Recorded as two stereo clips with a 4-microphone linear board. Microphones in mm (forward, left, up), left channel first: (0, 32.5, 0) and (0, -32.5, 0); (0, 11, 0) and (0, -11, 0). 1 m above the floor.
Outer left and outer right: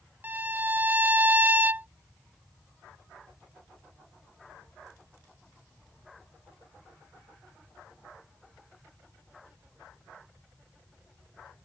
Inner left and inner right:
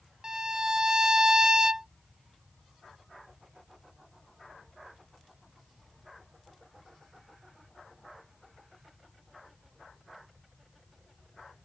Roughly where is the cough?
I don't hear a cough.